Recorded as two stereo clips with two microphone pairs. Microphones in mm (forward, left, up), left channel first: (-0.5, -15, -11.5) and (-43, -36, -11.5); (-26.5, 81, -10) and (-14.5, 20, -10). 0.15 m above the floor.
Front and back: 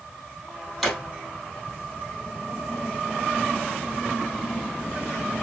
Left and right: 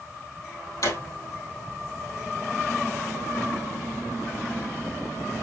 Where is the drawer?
115° left, 2.5 m.